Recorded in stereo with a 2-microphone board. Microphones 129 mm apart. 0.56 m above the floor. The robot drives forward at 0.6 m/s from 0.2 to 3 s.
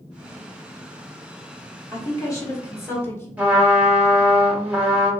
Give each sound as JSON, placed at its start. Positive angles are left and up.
{"t": 1.9, "sound": "a woman speaking", "side_deg": 25, "distance_m": 1.3}
{"t": 3.4, "sound": "a trumpet", "side_deg": -10, "distance_m": 1.0}